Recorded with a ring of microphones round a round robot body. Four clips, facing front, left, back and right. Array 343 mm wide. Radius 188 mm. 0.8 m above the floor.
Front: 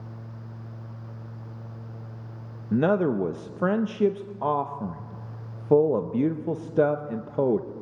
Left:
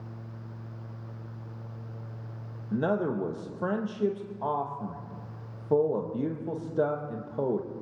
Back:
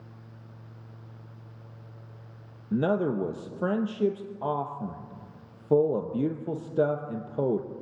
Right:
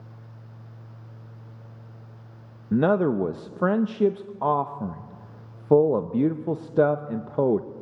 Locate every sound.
2.7 s a man speaking: 70° right, 1.0 m